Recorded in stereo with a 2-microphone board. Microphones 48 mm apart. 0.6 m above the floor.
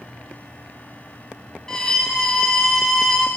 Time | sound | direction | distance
1.7 | a violin | 15° left (ahead or behind) | 0.8 m